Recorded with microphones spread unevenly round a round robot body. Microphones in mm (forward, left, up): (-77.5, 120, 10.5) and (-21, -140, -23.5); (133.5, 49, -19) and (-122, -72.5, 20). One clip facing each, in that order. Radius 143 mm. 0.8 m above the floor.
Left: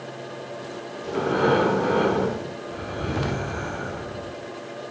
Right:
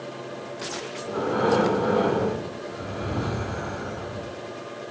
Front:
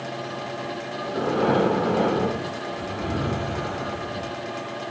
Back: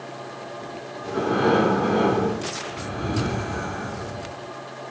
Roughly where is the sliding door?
No sliding door in this recording.